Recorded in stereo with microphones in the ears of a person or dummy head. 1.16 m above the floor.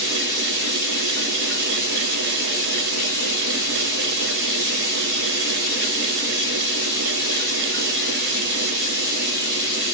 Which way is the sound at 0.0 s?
75° right (ahead or behind).